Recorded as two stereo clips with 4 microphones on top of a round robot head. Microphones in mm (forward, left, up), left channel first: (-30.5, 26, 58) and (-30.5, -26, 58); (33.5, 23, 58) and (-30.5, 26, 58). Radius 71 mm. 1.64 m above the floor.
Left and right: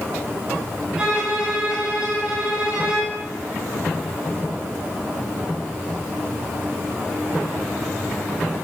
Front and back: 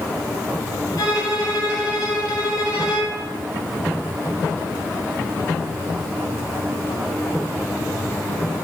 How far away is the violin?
About 7.5 m.